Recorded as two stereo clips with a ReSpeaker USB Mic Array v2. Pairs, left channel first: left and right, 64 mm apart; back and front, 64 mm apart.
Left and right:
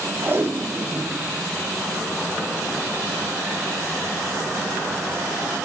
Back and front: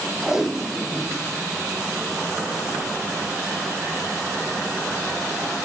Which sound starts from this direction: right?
Tape being pulled, at 0.2 s.